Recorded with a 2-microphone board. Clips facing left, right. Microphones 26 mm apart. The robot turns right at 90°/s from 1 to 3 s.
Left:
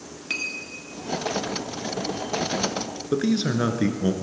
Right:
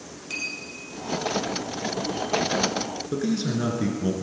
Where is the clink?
40° left (ahead or behind), 1.4 m.